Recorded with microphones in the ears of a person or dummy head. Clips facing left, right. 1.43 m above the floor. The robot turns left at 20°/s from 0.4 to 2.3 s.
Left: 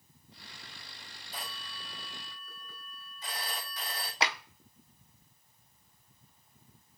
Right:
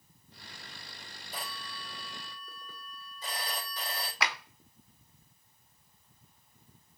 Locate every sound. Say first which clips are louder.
1.3 s a phone ringing: right 3 dB; 50° right (ahead or behind), 2.5 m; by 4.1 s 30° right (ahead or behind), 2.5 m
4.2 s a clap: left 2 dB; 25° left (ahead or behind), 0.7 m